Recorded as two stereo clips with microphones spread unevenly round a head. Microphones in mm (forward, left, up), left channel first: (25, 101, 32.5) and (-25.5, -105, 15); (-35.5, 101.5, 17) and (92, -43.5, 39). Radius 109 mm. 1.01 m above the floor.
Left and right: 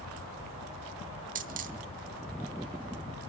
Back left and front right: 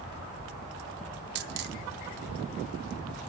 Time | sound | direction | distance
1.4 | a dropped coin | 55° right | 0.8 m